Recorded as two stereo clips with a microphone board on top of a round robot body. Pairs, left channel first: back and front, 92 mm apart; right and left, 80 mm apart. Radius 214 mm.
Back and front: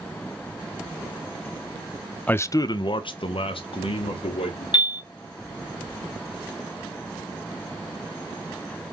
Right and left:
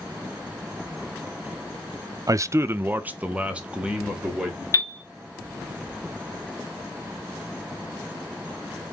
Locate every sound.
2.3 s a man speaking: 110° left, 0.5 m; by 4.6 s 170° left, 2.0 m
4.7 s a piano: 145° right, 2 m